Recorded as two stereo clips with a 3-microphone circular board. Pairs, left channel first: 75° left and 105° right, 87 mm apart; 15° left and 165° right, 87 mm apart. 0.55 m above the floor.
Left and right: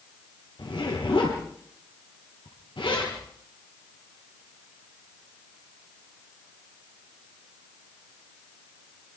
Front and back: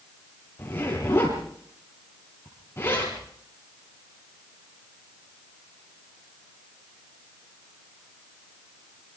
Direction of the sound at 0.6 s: 75° left.